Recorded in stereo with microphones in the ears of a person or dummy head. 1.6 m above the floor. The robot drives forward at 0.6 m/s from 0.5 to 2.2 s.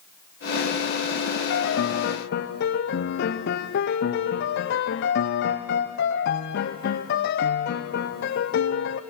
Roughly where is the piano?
Left.